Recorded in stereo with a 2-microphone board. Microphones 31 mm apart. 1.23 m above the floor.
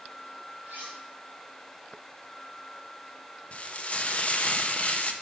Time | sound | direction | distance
0.6 | cutlery clinking | 75° right (ahead or behind) | 4 m
3.5 | frying | 45° left (ahead or behind) | 0.7 m